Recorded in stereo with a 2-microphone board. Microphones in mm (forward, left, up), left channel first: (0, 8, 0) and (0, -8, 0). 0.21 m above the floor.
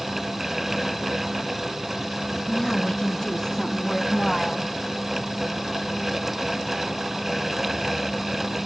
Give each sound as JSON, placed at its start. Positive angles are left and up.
{"t": 2.5, "sound": "a woman speaking", "side_deg": 40, "distance_m": 2.0}